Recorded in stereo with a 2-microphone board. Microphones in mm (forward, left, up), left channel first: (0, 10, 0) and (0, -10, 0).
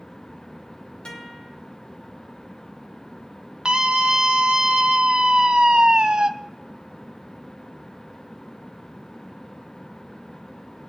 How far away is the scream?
About 1.1 m.